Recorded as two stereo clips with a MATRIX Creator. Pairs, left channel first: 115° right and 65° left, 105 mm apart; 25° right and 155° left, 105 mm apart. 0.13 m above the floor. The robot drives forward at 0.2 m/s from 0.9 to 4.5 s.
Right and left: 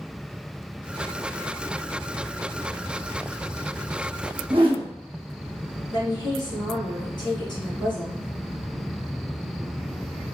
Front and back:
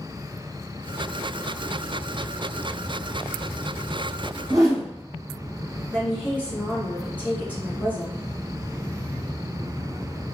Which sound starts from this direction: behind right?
A woman speaking, at 5.9 s.